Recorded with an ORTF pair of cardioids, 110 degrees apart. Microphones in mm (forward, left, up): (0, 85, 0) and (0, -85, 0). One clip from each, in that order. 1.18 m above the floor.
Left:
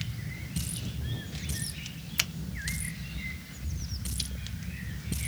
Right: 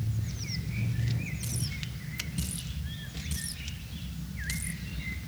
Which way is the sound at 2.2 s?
50° left.